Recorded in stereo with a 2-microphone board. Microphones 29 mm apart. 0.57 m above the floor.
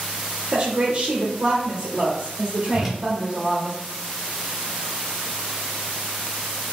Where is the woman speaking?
25° right (ahead or behind), 0.7 m.